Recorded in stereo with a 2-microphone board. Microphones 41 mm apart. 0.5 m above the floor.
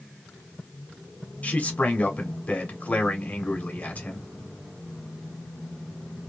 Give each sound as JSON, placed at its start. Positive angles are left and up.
{"t": 1.4, "sound": "a man speaking", "side_deg": 35, "distance_m": 1.2}